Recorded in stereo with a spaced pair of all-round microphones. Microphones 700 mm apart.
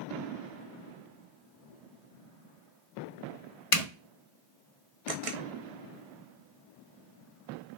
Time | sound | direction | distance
3.7 | a zipper | 50° left (ahead or behind) | 0.6 m
5.1 | a camera shutter | 55° right (ahead or behind) | 0.5 m